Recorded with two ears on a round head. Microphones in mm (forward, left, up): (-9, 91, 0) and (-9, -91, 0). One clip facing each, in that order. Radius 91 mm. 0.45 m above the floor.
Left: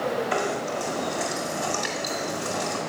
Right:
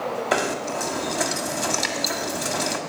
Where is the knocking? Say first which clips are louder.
Right 2 dB; 70° right (ahead or behind), 2.0 m.